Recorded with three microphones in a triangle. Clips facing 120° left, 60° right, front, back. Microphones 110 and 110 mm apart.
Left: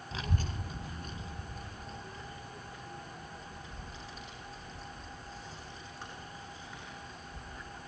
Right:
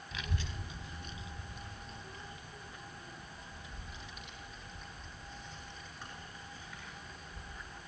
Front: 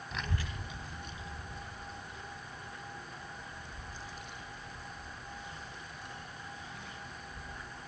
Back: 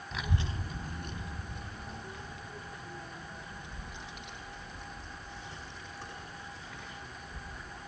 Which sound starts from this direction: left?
A child speaking, at 0.1 s.